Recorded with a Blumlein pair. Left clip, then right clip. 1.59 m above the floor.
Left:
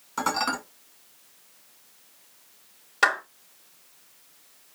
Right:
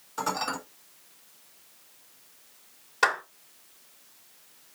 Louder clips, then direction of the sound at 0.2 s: Left 4 dB; 35° left.